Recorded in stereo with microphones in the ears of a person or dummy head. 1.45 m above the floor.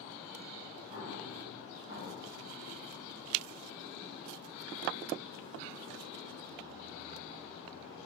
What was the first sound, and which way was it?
An explosion, 25° right (ahead or behind).